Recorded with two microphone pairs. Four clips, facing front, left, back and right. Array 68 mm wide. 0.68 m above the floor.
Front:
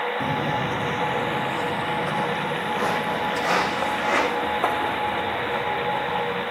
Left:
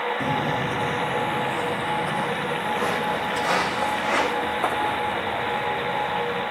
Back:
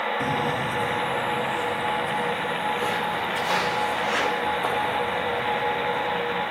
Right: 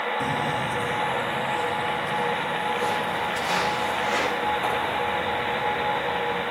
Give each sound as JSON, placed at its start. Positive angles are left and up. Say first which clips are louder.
{"t": 0.2, "sound": "footsteps", "louder": "left 1 dB, even", "azimuth_deg": 80, "distance_m": 0.8}